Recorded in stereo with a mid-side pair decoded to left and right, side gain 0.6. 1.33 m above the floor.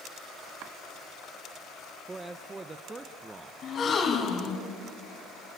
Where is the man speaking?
25° right, 0.9 m.